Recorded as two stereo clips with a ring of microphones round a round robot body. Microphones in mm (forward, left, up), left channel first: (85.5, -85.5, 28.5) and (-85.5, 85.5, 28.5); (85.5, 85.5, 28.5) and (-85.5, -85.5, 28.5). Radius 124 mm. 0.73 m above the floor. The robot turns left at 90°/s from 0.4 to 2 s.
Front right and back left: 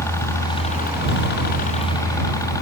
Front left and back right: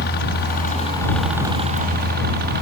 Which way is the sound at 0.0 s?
30° left.